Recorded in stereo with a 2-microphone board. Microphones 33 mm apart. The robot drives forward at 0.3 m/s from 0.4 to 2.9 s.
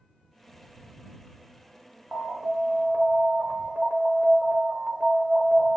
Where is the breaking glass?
No breaking glass in this recording.